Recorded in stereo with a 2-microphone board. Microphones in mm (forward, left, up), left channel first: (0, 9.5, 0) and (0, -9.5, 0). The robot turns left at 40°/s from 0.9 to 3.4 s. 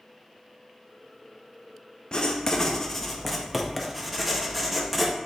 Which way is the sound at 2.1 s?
50° left.